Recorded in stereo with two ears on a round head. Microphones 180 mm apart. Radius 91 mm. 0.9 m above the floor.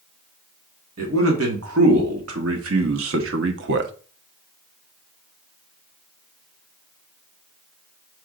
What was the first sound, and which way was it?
A man speaking, 75° right (ahead or behind).